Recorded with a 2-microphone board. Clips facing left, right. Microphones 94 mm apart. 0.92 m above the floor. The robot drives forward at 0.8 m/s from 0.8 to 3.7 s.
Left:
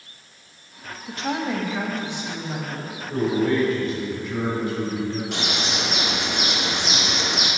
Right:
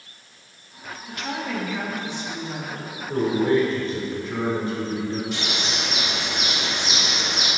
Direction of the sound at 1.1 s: 35° left (ahead or behind).